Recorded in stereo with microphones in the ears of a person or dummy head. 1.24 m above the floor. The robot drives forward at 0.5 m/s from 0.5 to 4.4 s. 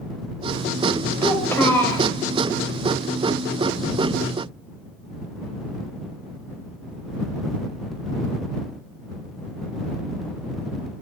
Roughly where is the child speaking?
Centre.